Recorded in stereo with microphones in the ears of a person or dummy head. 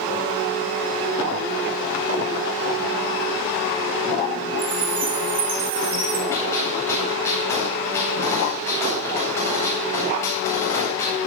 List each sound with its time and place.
4.6 s a chime: 30° right (ahead or behind), 2 m
6.3 s a gunshot: 15° left (ahead or behind), 9 m